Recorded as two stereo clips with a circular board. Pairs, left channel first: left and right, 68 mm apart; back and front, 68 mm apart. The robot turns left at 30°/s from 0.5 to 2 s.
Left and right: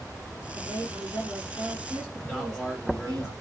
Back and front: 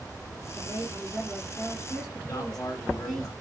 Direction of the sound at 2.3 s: 170° right.